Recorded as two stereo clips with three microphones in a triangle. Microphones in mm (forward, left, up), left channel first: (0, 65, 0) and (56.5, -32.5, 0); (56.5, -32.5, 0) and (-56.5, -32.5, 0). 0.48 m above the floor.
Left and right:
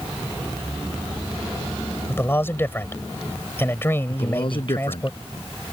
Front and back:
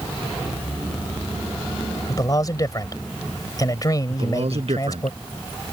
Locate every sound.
2.1 s a man speaking: 50° left
4.1 s a man speaking: 160° left